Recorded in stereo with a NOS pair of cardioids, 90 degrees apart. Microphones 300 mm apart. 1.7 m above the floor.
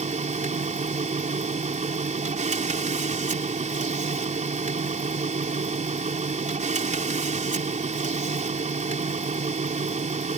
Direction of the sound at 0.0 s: 25° right.